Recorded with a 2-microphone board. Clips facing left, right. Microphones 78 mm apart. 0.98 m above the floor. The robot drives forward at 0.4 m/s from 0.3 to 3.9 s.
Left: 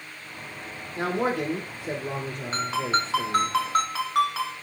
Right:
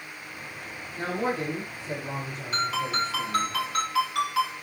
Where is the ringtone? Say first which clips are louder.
Left 2 dB; 30° left (ahead or behind), 4 m.